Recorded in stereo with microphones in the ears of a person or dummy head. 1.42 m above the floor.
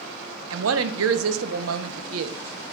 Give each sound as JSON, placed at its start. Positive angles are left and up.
{"t": 0.5, "sound": "a woman speaking", "side_deg": -80, "distance_m": 0.6}